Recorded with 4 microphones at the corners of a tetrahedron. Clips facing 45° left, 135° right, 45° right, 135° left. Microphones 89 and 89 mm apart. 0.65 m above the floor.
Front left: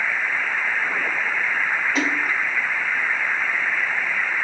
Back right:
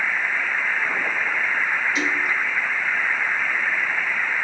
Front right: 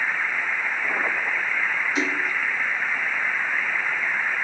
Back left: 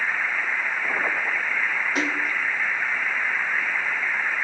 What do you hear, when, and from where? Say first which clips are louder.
1.9 s a splash: front left 1 dB, even; 95° left, 1.2 m